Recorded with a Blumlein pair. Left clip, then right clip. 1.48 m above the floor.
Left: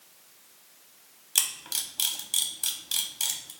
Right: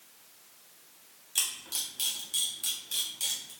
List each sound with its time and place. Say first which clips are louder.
1.4 s a camera shutter: left 3 dB; 70° left, 0.7 m